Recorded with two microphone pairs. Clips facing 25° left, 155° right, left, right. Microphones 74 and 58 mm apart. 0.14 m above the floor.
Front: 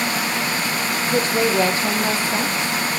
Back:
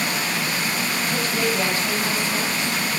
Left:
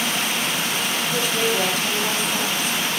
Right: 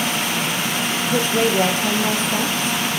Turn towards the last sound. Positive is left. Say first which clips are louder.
# front 6 dB, right 5 dB
turn(degrees=-30)